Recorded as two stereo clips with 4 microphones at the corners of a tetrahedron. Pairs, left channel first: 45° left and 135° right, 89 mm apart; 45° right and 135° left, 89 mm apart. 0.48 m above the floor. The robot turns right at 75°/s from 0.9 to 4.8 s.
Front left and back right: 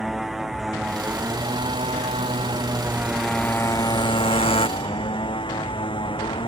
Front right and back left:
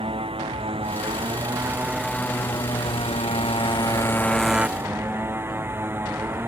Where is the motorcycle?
135° left; by 6.5 s 70° left.